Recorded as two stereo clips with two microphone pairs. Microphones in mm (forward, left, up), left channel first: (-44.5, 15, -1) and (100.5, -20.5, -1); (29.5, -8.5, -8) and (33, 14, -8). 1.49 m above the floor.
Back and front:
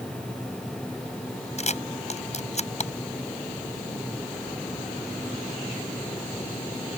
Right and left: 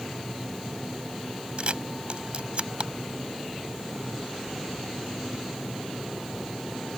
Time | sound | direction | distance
1.6 | a camera shutter | 125° left | ?